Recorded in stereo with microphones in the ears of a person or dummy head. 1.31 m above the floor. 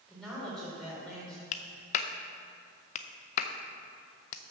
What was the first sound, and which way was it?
A woman speaking, 5° left (ahead or behind).